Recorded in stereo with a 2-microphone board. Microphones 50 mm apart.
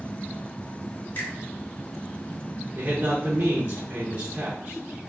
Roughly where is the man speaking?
Right.